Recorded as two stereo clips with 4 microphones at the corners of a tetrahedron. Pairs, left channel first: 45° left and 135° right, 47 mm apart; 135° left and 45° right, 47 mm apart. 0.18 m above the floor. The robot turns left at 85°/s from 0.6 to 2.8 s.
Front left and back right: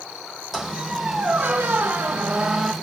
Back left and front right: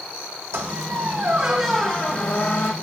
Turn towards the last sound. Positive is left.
turn(degrees=125)